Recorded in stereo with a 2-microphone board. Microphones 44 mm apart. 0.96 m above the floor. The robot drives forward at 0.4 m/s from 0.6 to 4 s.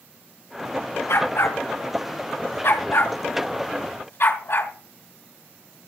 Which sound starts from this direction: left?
A dog barking, at 1.1 s.